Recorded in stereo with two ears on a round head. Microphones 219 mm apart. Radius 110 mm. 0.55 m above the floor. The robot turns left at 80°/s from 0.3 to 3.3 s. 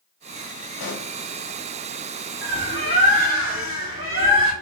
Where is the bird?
10° right, 2 m; by 4.5 s 80° right, 2 m.